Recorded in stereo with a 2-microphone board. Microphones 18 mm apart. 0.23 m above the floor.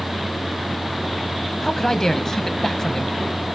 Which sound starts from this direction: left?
A man speaking, at 1.6 s.